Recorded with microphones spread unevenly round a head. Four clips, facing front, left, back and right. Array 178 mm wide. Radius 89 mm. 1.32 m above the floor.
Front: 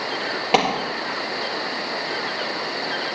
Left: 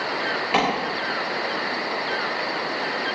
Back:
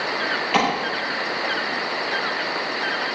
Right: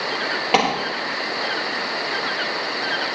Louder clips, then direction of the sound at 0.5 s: Right 3 dB, front 2 dB; 25° right.